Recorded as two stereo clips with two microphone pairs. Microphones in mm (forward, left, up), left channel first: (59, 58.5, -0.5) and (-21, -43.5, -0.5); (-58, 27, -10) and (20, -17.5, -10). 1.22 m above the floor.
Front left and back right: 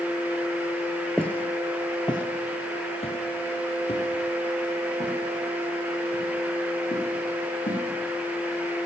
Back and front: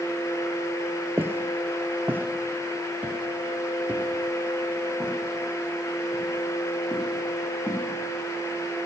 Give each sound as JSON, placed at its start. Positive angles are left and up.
{"t": 1.2, "sound": "footsteps", "azimuth_deg": -15, "distance_m": 1.2}